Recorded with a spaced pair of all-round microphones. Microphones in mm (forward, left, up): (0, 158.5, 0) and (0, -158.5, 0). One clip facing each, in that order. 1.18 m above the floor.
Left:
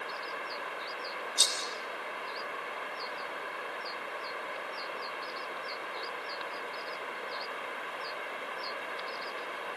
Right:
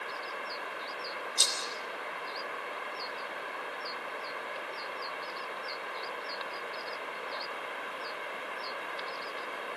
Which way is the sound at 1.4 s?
Centre (ahead or behind).